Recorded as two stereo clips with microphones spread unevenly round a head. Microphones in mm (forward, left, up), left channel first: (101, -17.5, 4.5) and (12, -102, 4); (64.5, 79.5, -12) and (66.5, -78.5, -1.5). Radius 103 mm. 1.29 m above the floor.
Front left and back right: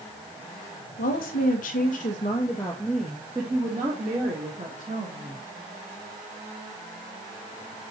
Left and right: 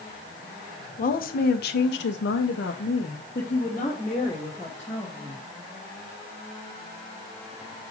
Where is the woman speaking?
55° left, 0.9 m; by 5.4 s 175° left, 1.7 m.